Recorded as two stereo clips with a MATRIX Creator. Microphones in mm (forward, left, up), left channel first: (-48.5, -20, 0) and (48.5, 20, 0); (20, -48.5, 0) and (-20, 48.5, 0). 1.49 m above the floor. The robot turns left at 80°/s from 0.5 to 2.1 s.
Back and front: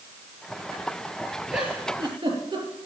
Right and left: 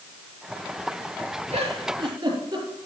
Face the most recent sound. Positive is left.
turn(degrees=60)